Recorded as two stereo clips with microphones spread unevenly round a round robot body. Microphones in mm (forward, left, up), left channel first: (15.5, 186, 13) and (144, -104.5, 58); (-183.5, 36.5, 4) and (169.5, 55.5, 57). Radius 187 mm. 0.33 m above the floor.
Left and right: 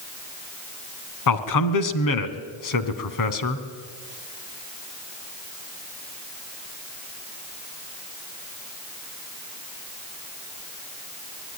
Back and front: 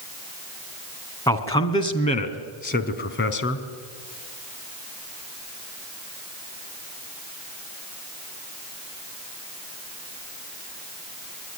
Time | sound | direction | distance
1.3 | a man speaking | 105° left | 3 m